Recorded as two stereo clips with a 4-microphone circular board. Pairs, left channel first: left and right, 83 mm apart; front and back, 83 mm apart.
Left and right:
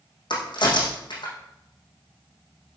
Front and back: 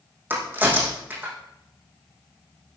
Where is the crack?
115° left, 5.5 m.